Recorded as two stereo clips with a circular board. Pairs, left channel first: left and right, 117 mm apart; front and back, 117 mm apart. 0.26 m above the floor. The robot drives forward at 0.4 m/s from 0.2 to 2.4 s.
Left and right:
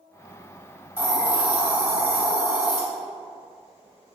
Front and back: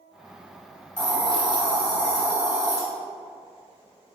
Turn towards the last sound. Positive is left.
turn(degrees=-165)